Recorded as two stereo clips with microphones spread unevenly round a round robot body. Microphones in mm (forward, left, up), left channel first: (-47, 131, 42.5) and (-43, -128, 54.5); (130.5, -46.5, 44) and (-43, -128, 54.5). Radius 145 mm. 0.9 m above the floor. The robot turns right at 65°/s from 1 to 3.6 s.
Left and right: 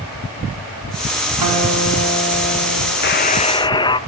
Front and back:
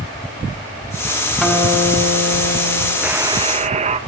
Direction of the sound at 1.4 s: 65° right.